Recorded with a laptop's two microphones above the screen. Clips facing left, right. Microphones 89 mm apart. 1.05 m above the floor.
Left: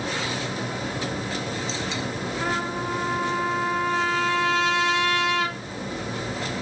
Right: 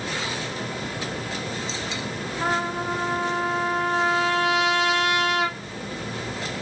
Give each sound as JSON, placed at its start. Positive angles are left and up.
{"t": 0.0, "sound": "a fan", "side_deg": 15, "distance_m": 1.9}
{"t": 2.4, "sound": "a trumpet", "side_deg": -20, "distance_m": 2.0}